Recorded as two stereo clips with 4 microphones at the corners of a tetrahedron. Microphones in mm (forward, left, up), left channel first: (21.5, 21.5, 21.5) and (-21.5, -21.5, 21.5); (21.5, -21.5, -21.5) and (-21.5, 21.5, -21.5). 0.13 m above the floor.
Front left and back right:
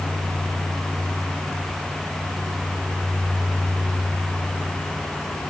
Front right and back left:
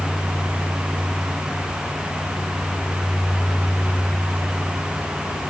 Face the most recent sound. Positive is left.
No sound to turn to.